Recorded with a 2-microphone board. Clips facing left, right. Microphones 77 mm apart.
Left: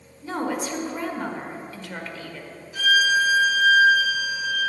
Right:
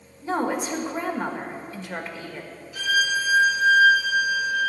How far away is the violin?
About 3 m.